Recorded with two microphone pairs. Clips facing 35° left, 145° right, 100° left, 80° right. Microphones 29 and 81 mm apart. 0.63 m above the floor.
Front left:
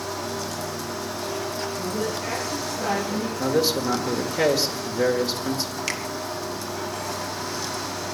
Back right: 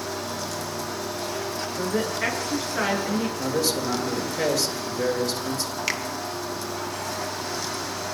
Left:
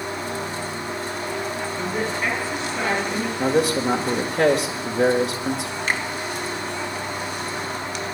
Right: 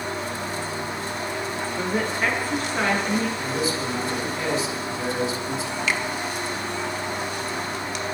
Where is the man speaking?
100° left, 1.8 m.